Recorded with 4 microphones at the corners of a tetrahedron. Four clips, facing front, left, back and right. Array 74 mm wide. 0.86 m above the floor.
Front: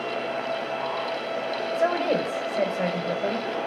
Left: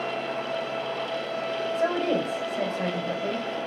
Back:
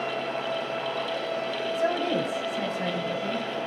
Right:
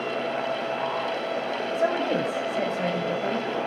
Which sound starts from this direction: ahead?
A woman speaking, at 1.8 s.